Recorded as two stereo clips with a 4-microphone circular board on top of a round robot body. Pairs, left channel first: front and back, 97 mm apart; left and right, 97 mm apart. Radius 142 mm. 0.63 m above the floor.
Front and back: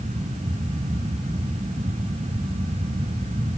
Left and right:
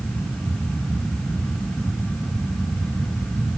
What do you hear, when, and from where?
Only background noise.